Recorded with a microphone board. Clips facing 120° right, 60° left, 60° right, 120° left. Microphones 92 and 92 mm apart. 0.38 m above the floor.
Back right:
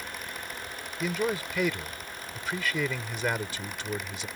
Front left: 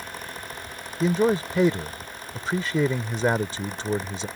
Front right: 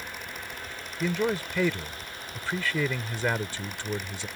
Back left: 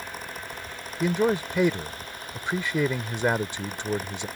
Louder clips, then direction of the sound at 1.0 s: Front left 8 dB, back left 4 dB; 70° left.